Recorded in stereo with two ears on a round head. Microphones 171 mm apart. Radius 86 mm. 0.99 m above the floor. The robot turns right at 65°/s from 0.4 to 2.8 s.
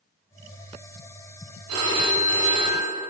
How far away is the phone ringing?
About 1.0 m.